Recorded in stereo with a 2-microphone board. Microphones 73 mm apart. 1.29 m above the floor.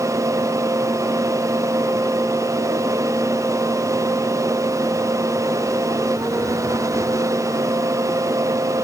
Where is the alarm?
I don't hear an alarm.